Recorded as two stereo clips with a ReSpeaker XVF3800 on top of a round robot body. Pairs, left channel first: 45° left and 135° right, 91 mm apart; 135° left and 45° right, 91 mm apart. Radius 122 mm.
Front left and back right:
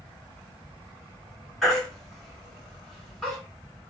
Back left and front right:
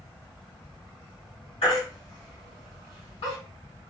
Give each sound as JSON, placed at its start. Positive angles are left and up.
{"t": 1.6, "sound": "a baby crying", "azimuth_deg": 130, "distance_m": 3.0}